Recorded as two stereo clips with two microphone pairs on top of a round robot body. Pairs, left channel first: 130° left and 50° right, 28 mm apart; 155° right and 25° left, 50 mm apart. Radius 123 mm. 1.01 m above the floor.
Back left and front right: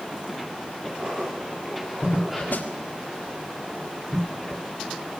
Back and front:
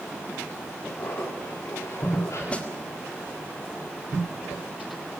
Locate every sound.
1.0 s laughter: 115° right, 4.5 m; by 2.4 s 140° right, 3.5 m
2.5 s a snare drum: 140° left, 1.9 m